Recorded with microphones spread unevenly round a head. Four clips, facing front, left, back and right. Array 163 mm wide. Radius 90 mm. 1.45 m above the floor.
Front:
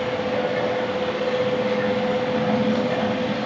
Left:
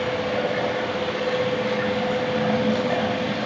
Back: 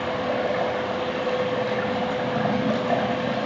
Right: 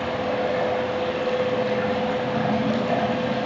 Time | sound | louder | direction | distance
0.0 | running water | even, front 2 dB | 170° right | 6 m